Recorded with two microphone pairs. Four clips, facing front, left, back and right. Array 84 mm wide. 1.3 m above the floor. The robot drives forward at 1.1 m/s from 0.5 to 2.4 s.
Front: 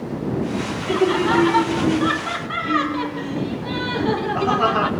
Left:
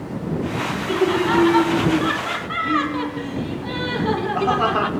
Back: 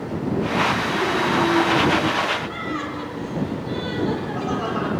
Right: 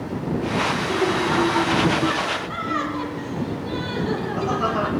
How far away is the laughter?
About 5.5 m.